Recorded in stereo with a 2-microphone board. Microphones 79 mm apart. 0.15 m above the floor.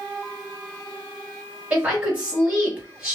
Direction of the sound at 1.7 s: 20° right (ahead or behind).